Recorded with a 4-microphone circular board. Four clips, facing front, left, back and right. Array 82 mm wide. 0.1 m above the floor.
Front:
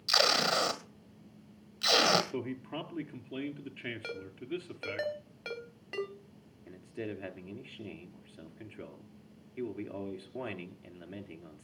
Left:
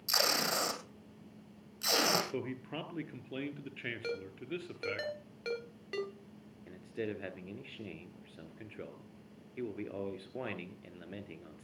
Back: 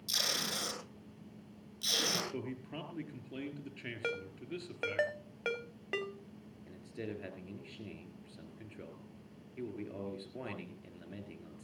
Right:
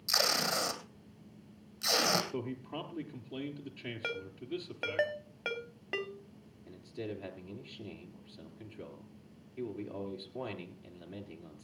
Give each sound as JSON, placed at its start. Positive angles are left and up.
{"t": 0.1, "sound": "tape being pulled", "azimuth_deg": 15, "distance_m": 1.9}
{"t": 2.3, "sound": "a man speaking", "azimuth_deg": 60, "distance_m": 1.9}
{"t": 4.0, "sound": "a ringtone", "azimuth_deg": -130, "distance_m": 1.3}
{"t": 6.7, "sound": "a man speaking", "azimuth_deg": 65, "distance_m": 2.0}